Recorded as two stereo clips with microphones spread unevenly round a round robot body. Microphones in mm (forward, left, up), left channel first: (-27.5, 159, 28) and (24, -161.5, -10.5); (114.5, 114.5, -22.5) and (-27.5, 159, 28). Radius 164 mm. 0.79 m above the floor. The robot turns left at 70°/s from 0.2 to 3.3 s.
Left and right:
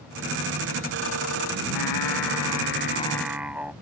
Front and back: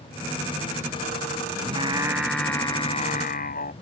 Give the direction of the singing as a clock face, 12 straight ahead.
8 o'clock.